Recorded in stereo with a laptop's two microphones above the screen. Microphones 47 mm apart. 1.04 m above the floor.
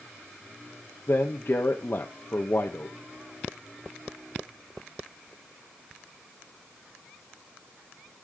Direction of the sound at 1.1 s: 60° left (ahead or behind).